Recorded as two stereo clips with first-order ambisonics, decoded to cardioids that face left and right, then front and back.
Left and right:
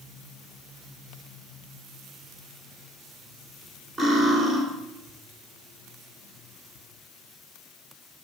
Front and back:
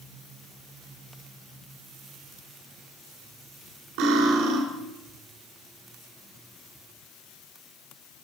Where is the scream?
I don't hear a scream.